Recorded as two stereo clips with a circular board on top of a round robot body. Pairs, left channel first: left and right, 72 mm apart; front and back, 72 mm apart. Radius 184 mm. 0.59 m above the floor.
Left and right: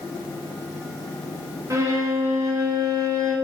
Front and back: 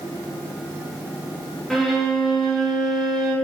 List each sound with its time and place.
1.7 s a violin: 90° right, 1.0 m